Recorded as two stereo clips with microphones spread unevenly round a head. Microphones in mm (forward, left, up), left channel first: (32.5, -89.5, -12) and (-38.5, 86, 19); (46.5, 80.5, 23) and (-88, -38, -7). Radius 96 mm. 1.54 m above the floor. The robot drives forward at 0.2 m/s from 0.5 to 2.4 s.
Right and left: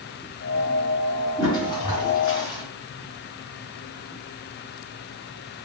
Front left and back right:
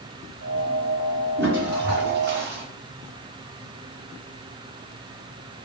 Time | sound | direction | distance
1.4 | a toilet flushing | 135° right | 1.9 m